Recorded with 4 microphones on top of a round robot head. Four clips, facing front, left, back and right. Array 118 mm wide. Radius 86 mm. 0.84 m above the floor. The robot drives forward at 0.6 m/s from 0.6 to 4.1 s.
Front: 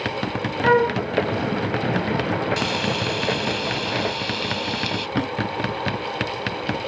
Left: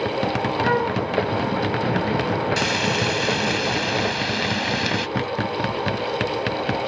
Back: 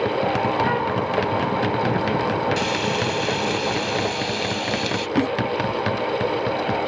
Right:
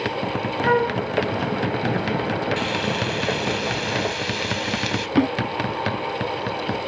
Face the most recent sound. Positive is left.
turn(degrees=-110)